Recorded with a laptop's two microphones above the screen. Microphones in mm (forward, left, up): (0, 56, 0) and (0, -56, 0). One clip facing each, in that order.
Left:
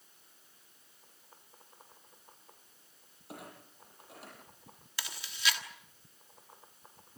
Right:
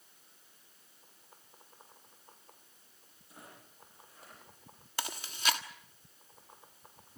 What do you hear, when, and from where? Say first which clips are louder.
3.3 s a clunk: left 7 dB; 75° left (ahead or behind), 9.5 m
5.0 s chewing: right 1 dB; 45° right (ahead or behind), 1.5 m